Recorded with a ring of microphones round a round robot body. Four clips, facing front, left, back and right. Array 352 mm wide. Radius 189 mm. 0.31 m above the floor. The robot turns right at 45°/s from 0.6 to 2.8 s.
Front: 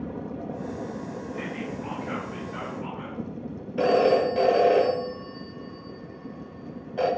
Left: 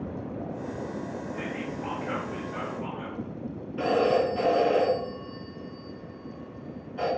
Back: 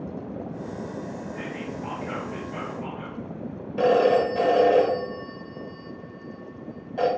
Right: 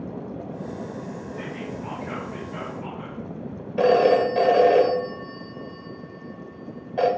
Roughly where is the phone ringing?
Right.